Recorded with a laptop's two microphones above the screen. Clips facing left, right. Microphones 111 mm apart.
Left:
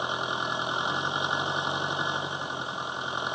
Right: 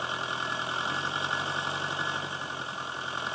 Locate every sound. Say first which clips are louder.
0.0 s an engine running: left 3 dB; 20° left (ahead or behind)